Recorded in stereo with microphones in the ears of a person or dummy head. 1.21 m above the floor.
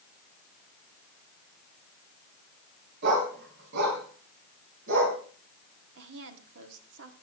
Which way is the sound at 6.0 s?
65° right (ahead or behind).